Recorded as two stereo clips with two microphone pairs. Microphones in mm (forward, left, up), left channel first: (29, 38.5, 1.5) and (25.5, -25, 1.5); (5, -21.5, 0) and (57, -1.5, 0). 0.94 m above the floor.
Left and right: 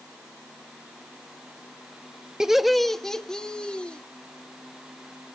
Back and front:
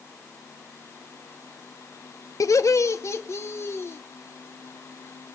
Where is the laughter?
175° right, 0.8 m; by 4.0 s 160° left, 1.7 m.